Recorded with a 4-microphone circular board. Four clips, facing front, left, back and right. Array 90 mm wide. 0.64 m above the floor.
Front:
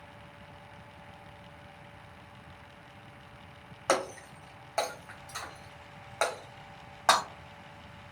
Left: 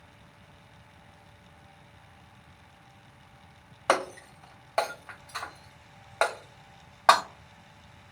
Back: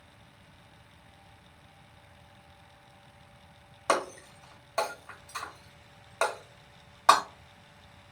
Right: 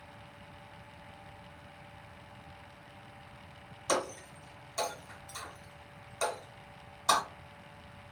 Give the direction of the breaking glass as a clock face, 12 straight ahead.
9 o'clock.